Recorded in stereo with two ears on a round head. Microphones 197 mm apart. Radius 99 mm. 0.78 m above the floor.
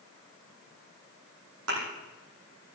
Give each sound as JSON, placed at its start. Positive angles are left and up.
{"t": 1.7, "sound": "a thud", "side_deg": -75, "distance_m": 10.0}